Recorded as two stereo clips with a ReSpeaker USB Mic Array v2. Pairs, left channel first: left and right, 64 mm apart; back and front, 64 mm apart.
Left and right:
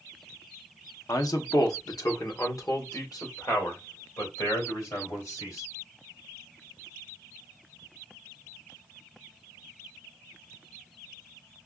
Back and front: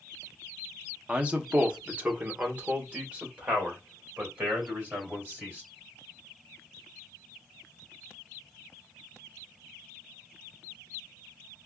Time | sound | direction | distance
1.1 | a man speaking | 75° left | 0.6 m